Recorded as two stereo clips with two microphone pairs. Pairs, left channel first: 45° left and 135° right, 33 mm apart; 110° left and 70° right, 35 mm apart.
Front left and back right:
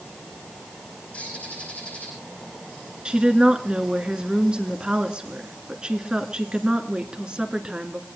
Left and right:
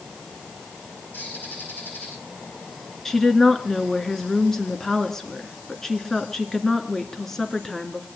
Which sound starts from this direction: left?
A bird, at 1.1 s.